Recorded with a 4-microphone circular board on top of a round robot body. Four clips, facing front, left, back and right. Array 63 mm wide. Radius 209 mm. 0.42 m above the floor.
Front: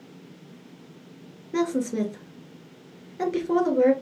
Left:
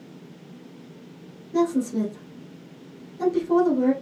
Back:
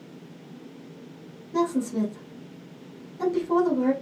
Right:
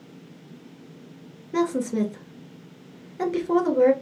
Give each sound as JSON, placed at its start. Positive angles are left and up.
{"t": 1.5, "sound": "a woman speaking", "azimuth_deg": -55, "distance_m": 2.0}